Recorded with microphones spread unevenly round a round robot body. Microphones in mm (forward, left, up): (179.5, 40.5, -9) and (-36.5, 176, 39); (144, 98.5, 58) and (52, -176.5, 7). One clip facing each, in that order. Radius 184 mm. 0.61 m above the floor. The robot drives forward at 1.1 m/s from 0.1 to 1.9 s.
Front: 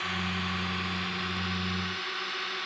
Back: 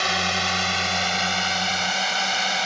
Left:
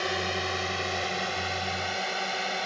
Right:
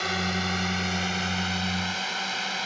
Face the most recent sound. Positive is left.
turn(degrees=175)